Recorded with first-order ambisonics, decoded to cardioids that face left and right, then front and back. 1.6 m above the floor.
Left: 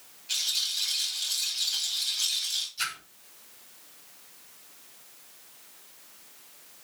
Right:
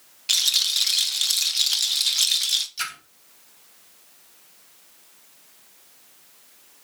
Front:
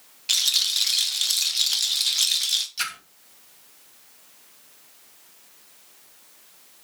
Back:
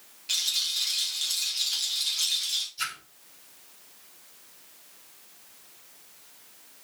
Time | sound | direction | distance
0.3 | a rattle | 60° right | 1.1 m
2.8 | a splash | 35° right | 3 m